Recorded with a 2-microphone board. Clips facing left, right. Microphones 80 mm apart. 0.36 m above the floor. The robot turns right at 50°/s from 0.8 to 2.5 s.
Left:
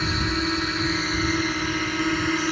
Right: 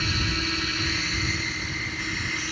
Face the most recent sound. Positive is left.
turn(degrees=115)